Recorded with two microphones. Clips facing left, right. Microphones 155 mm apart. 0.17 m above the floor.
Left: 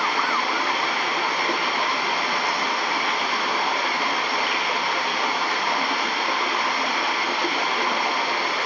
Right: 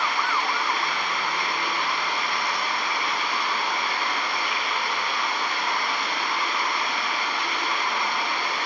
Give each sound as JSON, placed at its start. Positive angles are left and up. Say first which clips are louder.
{"t": 0.0, "sound": "running water", "louder": "left 2 dB", "side_deg": 65, "distance_m": 5.0}